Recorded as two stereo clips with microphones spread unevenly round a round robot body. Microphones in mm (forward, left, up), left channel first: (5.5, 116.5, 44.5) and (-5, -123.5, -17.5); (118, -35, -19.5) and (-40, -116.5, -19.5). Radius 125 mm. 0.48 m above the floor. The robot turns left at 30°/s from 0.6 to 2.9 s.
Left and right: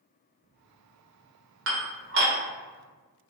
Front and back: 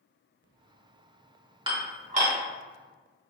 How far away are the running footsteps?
I don't hear running footsteps.